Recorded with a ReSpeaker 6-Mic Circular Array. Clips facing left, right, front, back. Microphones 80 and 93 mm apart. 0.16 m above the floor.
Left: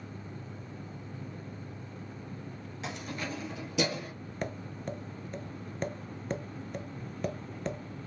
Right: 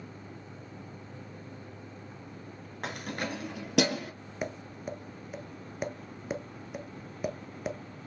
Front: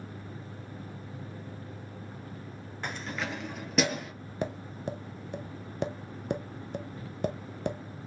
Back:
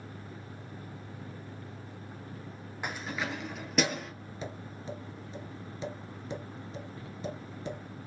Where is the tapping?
5° right, 0.7 m.